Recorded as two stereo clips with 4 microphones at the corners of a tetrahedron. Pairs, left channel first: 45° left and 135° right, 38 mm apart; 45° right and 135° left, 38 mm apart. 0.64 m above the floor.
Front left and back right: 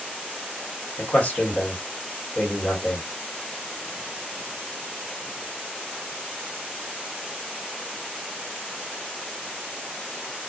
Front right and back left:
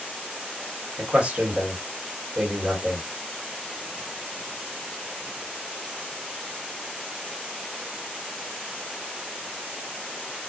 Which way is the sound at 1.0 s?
85° left.